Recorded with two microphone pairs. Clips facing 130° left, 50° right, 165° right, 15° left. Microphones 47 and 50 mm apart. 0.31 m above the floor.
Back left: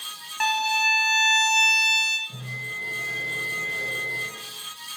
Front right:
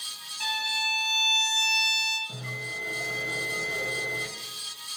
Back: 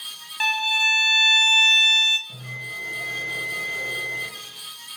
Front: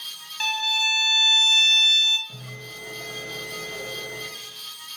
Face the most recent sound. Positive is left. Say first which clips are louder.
# back left 2 dB, back 6 dB
turn(degrees=-90)